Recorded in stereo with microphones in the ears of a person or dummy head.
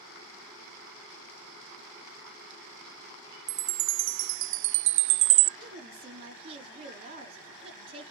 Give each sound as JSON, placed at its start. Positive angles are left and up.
{"t": 3.5, "sound": "a chime", "side_deg": -65, "distance_m": 0.5}
{"t": 5.6, "sound": "a woman speaking", "side_deg": -35, "distance_m": 3.5}